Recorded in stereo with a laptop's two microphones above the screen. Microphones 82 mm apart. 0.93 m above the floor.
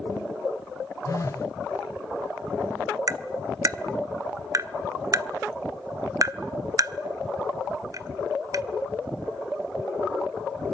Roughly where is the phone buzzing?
Left.